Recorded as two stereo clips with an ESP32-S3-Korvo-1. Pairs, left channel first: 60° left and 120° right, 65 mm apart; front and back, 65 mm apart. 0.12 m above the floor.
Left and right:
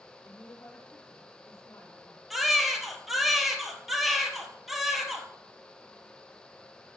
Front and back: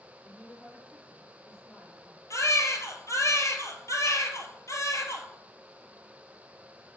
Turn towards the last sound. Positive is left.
turn(degrees=-35)